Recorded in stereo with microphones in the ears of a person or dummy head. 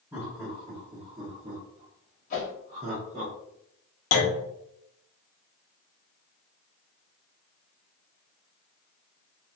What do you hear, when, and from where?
0.1 s laughter: 10° right (ahead or behind), 1.2 m; by 3.3 s 30° right (ahead or behind), 1.0 m
2.3 s a whoosh: 40° left (ahead or behind), 1.0 m
4.1 s a clunk: 65° left (ahead or behind), 0.6 m